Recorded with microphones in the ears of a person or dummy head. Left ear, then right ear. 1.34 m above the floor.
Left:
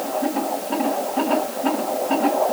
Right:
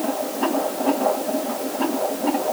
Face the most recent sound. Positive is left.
No sound to turn to.